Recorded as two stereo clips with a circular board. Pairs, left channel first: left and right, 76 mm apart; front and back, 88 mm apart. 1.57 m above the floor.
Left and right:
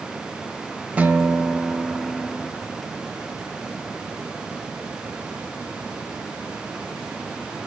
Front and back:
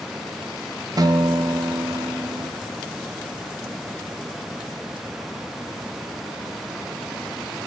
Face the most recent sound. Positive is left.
turn(degrees=-155)